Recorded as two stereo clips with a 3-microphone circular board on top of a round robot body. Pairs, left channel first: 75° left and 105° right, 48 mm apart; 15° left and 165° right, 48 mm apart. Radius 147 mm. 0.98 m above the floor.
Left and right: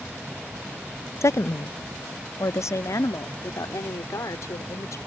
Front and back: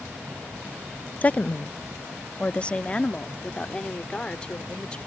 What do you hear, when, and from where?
1.2 s a woman speaking: 75° left; by 5.0 s 85° left